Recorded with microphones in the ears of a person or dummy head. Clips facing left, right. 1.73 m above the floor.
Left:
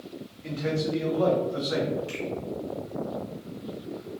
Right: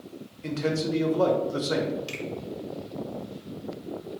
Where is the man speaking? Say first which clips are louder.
Right 1 dB; 50° right (ahead or behind), 0.7 m.